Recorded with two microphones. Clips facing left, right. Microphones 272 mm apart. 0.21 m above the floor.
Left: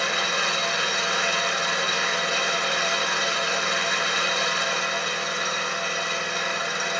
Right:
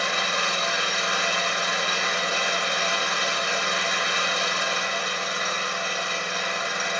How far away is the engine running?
About 1.3 m.